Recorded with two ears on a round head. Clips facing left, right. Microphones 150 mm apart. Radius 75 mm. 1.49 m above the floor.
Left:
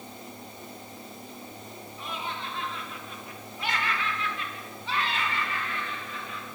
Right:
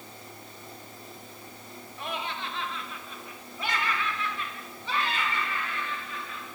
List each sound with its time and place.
2.0 s laughter: 50° right (ahead or behind), 2 m; by 6.5 s 65° right (ahead or behind), 3.5 m